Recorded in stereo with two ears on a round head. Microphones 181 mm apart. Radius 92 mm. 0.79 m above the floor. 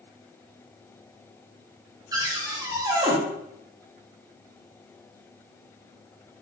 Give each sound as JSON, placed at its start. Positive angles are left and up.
{"t": 2.1, "sound": "a cupboard door", "side_deg": -20, "distance_m": 0.6}